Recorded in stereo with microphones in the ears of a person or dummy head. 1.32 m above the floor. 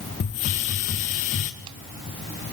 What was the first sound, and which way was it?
A hiss, 35° left (ahead or behind).